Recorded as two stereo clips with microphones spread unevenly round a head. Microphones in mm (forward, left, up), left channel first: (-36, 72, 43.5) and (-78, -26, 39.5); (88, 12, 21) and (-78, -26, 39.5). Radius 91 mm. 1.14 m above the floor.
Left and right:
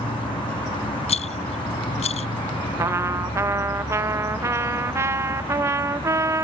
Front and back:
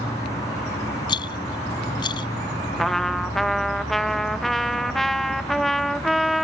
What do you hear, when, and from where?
0.0 s an insect: 85° left
1.1 s a rattle: 80° left
2.8 s a trumpet: 65° right